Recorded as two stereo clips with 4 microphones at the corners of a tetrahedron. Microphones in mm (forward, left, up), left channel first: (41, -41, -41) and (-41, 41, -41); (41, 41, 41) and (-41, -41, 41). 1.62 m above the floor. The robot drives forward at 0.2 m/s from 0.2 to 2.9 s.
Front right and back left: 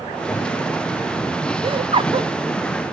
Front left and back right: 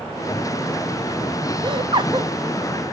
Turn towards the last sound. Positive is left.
turn(degrees=180)